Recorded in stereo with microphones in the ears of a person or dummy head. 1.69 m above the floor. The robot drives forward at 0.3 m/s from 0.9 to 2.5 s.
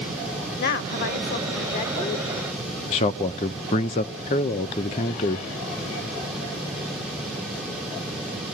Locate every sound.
0.6 s a woman speaking: 60° left (ahead or behind), 0.9 m; by 2.3 s 40° left (ahead or behind), 1.2 m
2.9 s a man speaking: 25° left (ahead or behind), 0.5 m